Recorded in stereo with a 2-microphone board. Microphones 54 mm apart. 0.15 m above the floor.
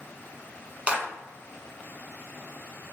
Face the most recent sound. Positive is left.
turn(degrees=-25)  # may be behind; listen again after turning